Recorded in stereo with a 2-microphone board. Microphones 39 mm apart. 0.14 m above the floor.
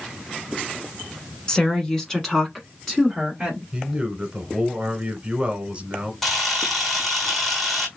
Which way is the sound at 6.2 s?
Centre (ahead or behind).